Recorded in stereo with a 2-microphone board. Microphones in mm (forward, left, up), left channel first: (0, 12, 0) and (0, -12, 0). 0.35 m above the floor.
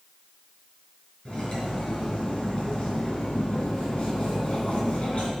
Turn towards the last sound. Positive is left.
turn(degrees=50)  # may be behind; listen again after turning